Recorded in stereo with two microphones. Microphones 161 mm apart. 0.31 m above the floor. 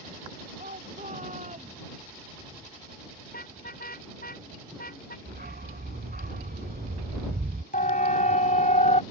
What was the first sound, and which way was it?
A shout, 55° right (ahead or behind).